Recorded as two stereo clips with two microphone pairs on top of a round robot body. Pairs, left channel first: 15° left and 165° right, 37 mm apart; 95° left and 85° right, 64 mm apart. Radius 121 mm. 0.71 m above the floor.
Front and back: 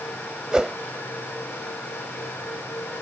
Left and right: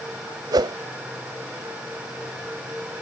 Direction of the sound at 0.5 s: 105° right.